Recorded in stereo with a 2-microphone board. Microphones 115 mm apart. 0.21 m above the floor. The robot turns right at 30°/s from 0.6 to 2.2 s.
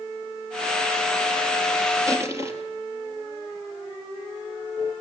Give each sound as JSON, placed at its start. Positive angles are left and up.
{"t": 2.1, "sound": "crushing", "side_deg": -30, "distance_m": 3.0}